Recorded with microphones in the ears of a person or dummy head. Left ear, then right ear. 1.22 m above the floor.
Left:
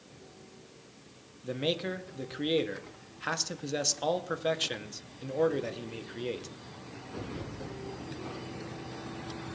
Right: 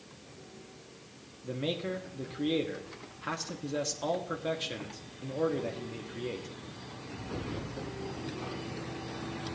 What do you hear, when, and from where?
1.4 s a man speaking: 30° left (ahead or behind), 1.0 m